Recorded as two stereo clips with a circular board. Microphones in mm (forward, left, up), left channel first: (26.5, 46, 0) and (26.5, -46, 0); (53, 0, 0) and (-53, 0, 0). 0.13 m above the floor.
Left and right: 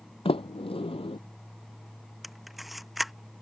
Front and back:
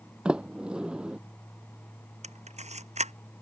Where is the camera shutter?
Straight behind.